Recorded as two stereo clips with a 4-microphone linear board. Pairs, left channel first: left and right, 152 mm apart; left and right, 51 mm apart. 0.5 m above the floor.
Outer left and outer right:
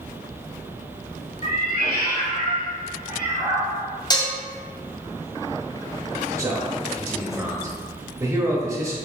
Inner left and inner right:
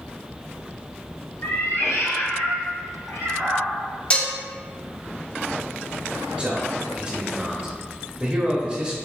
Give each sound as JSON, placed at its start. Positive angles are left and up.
{"t": 1.4, "sound": "a cat meowing", "side_deg": 60, "distance_m": 0.9}
{"t": 4.1, "sound": "dishes clattering", "side_deg": 25, "distance_m": 0.5}
{"t": 6.4, "sound": "a man speaking", "side_deg": -20, "distance_m": 1.0}